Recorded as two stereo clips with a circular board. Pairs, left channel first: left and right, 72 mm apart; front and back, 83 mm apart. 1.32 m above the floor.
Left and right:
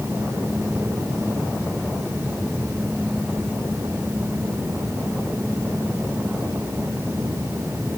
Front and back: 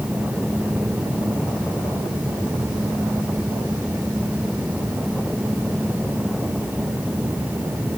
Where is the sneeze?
I don't hear a sneeze.